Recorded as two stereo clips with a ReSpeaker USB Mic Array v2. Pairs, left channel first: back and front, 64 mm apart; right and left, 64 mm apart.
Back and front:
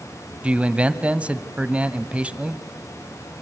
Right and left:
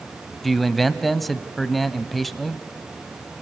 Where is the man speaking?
Straight ahead, 1.1 m.